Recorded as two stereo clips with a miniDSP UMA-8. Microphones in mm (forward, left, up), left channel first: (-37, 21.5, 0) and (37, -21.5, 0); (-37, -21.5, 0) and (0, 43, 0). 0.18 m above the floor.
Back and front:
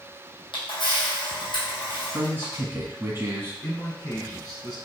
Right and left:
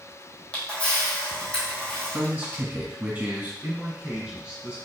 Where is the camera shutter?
165° left, 1.5 m.